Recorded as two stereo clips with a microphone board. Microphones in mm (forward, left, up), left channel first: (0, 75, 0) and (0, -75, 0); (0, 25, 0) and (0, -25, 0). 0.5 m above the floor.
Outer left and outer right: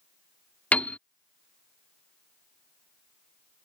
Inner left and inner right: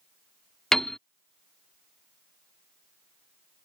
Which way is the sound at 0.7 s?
10° left (ahead or behind).